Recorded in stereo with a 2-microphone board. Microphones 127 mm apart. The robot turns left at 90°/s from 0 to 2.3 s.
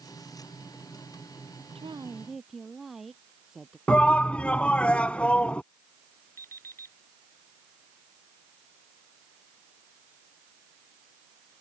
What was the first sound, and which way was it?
A woman speaking, 130° right.